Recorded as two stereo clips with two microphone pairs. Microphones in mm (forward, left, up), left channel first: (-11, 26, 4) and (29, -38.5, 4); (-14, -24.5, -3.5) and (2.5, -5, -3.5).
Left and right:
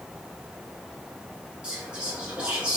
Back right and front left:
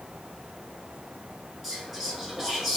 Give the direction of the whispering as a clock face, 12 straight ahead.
1 o'clock.